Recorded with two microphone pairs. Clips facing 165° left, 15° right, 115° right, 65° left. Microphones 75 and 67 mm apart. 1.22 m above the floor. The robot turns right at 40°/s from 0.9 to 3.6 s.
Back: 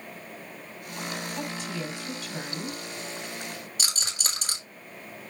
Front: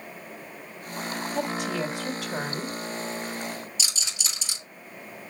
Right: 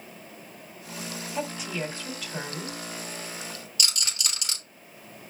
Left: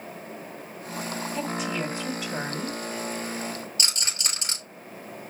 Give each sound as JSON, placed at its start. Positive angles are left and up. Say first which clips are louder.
{"t": 1.4, "sound": "a woman speaking", "louder": "front 6 dB, left 1 dB", "azimuth_deg": -35, "distance_m": 3.0}
{"t": 3.8, "sound": "a rattle", "louder": "back 1 dB, left 1 dB", "azimuth_deg": 125, "distance_m": 4.5}